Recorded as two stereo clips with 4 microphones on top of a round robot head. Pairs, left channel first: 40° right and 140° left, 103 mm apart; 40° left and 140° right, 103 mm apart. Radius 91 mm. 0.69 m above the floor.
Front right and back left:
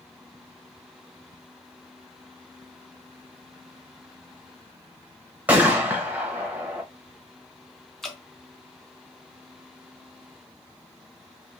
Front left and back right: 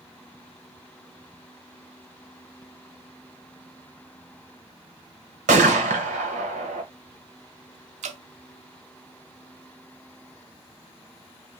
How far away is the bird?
I don't hear a bird.